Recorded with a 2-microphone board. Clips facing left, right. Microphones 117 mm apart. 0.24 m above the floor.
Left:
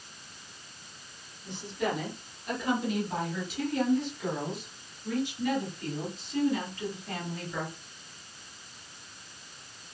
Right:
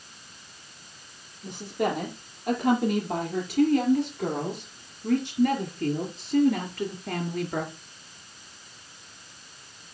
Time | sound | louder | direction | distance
1.4 | a woman speaking | right 4 dB | 70° right (ahead or behind) | 6.5 m